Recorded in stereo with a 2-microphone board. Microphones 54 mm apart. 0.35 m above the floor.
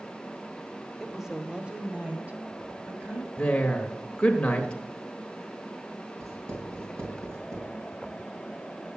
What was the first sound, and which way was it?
A woman speaking, centre (ahead or behind).